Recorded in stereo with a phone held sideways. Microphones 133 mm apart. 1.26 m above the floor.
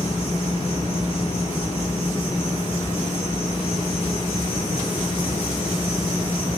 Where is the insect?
45° left (ahead or behind), 1.8 m.